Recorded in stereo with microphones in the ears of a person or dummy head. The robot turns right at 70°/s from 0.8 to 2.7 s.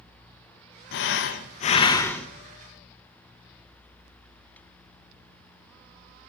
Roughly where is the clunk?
I don't hear a clunk.